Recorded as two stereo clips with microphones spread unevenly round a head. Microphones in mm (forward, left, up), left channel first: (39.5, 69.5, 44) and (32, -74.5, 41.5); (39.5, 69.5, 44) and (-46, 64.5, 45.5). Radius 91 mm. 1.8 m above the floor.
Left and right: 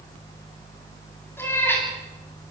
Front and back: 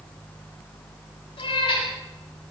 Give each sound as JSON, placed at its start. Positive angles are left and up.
{"t": 1.4, "sound": "a cat meowing", "azimuth_deg": 15, "distance_m": 9.0}